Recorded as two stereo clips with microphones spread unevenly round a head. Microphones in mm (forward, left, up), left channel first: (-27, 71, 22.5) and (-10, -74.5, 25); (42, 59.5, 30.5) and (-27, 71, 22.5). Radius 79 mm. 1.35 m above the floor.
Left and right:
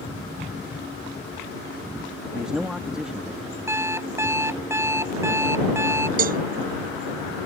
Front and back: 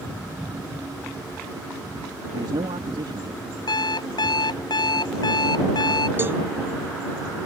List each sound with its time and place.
2.3 s a man speaking: 170° right
3.7 s an alarm clock: 10° right
6.2 s a cowbell: 115° right